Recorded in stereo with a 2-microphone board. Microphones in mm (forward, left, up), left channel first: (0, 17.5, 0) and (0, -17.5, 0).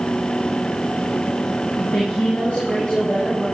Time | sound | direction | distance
1.8 | a woman speaking | 30° left (ahead or behind) | 5.5 m